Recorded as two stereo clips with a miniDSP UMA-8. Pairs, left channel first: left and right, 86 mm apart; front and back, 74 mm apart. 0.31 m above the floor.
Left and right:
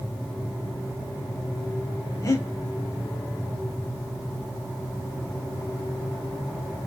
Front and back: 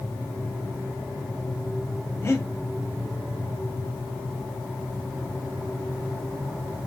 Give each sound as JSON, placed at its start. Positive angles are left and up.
{"t": 2.2, "sound": "breathing", "azimuth_deg": 50, "distance_m": 0.6}